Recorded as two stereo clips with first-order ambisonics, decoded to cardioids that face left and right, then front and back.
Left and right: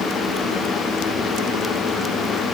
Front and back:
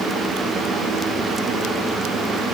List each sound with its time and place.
Only background noise.